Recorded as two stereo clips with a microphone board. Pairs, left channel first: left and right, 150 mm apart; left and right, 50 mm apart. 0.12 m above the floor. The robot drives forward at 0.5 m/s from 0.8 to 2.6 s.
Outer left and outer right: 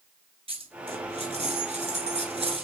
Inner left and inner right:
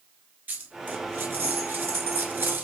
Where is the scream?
I don't hear a scream.